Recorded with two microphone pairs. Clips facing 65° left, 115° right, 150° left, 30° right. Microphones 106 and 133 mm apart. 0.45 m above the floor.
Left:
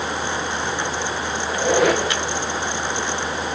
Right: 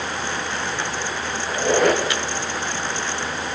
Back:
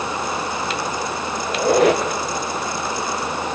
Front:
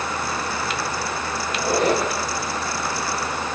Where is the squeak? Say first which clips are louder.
Even, back 5 dB; 150° left, 3 m.